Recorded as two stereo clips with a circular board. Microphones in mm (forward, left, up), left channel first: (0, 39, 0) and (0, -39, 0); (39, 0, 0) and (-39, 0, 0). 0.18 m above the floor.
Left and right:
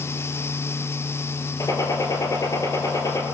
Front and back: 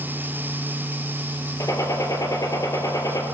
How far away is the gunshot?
About 3 m.